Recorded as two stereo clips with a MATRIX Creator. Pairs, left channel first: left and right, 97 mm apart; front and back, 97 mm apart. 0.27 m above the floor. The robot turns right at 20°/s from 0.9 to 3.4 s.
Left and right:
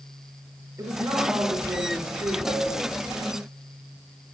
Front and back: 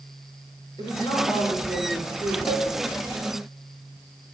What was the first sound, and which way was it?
A woman speaking, 30° right.